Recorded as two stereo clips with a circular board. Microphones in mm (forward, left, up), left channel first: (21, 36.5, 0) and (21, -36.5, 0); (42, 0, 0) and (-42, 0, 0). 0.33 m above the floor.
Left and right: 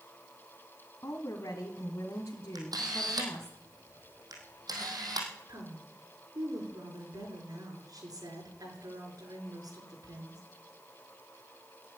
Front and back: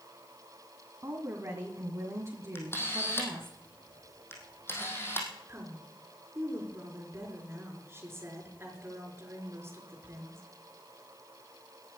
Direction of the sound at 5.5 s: 120° right.